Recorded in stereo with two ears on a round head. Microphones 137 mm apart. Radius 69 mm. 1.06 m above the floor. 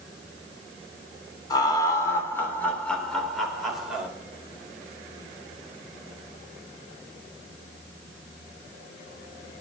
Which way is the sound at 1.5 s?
30° left (ahead or behind).